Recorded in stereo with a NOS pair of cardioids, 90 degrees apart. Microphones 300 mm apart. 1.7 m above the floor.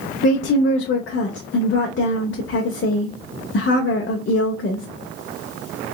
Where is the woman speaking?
45° left, 0.8 m.